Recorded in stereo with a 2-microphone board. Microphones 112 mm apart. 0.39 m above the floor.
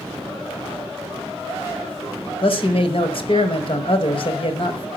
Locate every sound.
2.4 s a man speaking: 55° left (ahead or behind), 1.7 m